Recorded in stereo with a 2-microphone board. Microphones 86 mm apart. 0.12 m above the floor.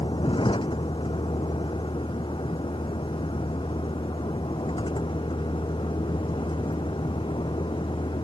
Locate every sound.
0.0 s a vehicle: 80° left